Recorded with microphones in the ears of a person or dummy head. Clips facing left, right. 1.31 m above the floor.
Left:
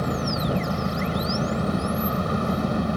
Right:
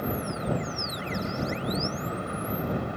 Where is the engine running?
80° left.